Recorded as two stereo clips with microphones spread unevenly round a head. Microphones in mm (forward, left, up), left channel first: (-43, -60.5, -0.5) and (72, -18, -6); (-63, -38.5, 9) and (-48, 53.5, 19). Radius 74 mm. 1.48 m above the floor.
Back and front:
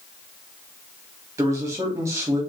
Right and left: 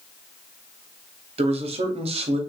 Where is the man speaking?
90° left, 0.9 m.